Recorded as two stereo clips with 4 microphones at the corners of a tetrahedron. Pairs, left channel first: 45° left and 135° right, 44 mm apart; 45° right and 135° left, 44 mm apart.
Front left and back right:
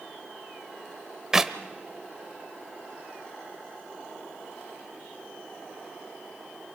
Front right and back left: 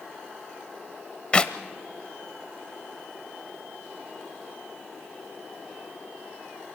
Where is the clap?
70° right, 0.7 m.